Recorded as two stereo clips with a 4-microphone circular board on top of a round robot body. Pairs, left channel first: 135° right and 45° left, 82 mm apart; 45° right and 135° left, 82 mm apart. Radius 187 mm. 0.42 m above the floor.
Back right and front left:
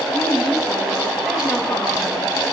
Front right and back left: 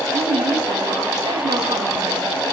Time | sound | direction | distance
0.1 | a woman speaking | 135° left | 4 m